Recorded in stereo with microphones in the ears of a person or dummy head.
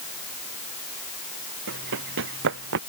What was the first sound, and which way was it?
Running footsteps, 75° right (ahead or behind).